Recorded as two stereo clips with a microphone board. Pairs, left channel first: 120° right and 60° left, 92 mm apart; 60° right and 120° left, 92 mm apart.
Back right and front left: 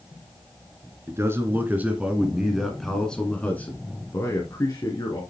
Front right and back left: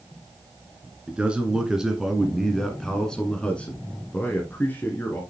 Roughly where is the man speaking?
Ahead left.